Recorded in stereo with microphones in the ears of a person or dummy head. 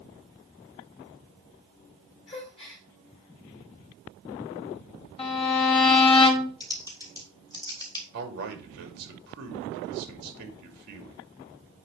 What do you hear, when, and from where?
2.3 s a gasp: 35° left (ahead or behind), 2.5 m
5.2 s a violin: 35° left (ahead or behind), 1.1 m
6.6 s typing on a keyboard: 20° left (ahead or behind), 1.2 m
8.1 s a man speaking: 55° right (ahead or behind), 2 m